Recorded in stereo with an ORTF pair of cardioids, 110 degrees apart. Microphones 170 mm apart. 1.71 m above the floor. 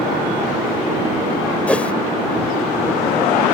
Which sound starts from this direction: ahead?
A whoosh, at 1.7 s.